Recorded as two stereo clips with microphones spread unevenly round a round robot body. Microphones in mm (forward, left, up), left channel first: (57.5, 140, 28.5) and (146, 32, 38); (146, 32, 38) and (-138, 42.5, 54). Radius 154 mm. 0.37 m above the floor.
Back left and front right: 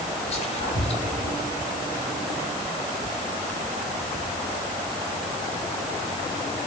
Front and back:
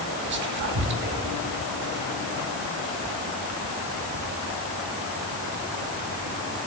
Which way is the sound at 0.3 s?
140° left.